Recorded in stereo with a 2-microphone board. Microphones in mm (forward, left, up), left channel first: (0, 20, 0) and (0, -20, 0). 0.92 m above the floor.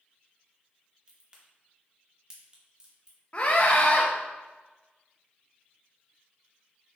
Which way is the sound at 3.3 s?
35° left (ahead or behind).